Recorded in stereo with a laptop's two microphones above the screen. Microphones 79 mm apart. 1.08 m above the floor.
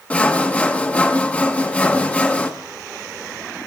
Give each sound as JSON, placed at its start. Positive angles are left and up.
{"t": 0.1, "sound": "sawing", "side_deg": 20, "distance_m": 1.2}